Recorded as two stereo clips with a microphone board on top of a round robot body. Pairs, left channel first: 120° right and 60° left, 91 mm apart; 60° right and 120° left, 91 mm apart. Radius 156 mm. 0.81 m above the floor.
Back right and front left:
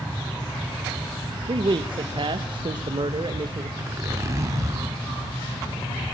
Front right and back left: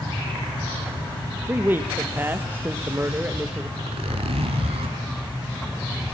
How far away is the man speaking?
About 1.6 m.